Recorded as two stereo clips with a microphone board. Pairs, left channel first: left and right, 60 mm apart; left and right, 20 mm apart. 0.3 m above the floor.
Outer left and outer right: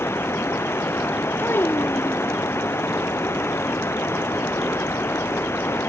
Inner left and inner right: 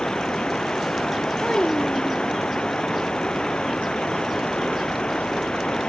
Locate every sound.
0.0 s running water: 50° left (ahead or behind)
1.4 s a child speaking: 45° left (ahead or behind)